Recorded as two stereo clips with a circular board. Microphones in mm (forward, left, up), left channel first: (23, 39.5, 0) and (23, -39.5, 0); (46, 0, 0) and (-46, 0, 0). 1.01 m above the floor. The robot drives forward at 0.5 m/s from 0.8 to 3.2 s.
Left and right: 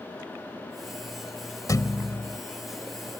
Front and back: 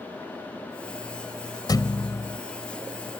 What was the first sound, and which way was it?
A thud, 45° left.